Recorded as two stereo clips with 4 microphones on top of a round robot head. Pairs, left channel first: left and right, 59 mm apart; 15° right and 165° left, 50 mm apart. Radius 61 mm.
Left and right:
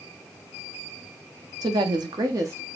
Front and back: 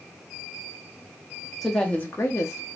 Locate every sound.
1.6 s a woman speaking: 105° right, 0.6 m; by 2.6 s 40° right, 0.6 m